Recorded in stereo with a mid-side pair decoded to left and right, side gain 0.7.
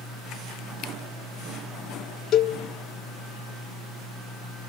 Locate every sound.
2.3 s a cowbell: 55° left, 1.4 m